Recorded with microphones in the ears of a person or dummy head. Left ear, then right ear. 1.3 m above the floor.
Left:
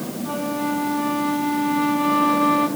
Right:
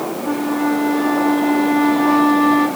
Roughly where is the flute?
Right.